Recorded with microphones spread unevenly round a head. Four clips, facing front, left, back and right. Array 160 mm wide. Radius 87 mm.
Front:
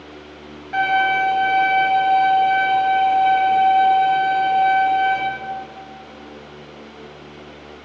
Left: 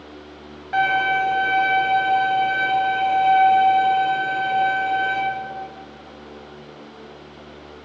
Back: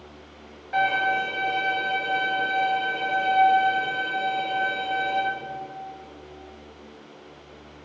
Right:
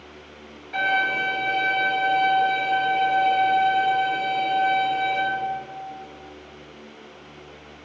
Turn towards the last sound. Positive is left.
turn(degrees=70)